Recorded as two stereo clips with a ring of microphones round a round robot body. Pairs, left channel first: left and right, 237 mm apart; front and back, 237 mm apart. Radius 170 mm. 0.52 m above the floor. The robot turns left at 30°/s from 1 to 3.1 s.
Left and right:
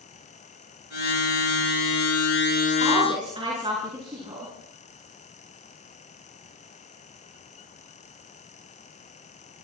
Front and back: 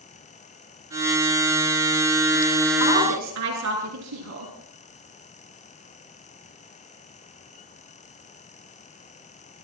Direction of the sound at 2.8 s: 155° right.